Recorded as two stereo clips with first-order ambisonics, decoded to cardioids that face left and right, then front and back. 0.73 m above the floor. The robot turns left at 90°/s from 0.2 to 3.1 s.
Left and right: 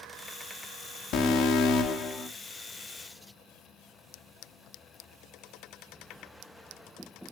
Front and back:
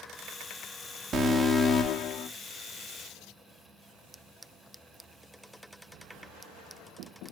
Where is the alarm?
120° left, 0.8 m; by 2.3 s 15° left, 0.8 m.